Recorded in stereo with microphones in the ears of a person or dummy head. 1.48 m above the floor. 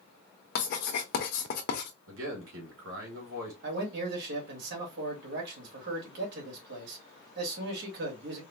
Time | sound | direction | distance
0.6 | writing | 55° left (ahead or behind) | 1.1 m
2.1 | a man speaking | 80° right | 3 m
3.6 | a man speaking | 65° right (ahead or behind) | 2.5 m